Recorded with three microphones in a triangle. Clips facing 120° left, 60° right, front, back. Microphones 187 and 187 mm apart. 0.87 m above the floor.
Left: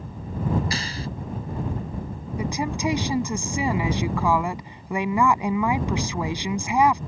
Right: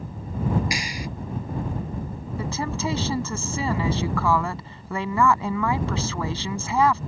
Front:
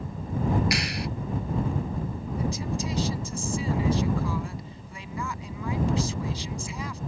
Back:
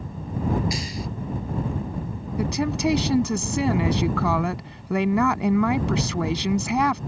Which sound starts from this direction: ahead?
A clap, at 0.7 s.